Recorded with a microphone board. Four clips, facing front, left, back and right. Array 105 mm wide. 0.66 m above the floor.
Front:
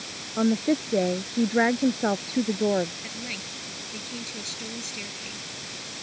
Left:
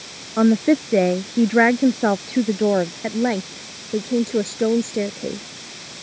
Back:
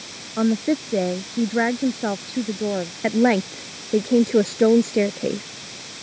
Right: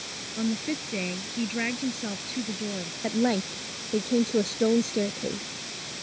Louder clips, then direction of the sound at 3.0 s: Left 4 dB, back 21 dB; 165° left.